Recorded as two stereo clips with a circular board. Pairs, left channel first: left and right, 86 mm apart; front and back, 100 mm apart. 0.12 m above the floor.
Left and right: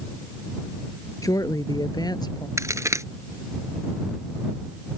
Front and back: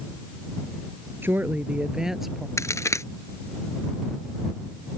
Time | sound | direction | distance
1.2 | a woman speaking | 120° left | ?
2.6 | a crack | 50° right | ?